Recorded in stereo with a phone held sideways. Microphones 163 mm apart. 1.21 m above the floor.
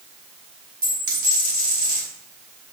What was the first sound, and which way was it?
A dropped coin, 65° right (ahead or behind).